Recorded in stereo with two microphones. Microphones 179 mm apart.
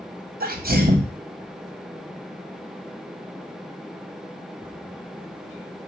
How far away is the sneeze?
About 0.7 m.